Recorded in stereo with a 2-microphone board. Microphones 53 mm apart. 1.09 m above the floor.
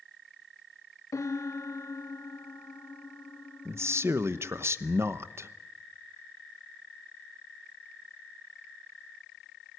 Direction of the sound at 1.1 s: 75° left (ahead or behind).